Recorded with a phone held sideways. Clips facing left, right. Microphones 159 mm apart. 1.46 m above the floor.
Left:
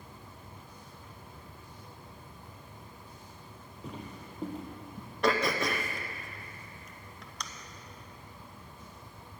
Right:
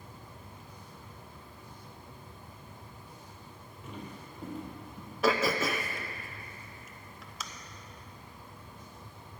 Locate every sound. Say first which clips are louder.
3.8 s footsteps: left 1 dB; 35° left (ahead or behind), 2.5 m; by 5.1 s 30° left (ahead or behind), 3 m
5.2 s throat clearing: right 1 dB; 5° right (ahead or behind), 0.6 m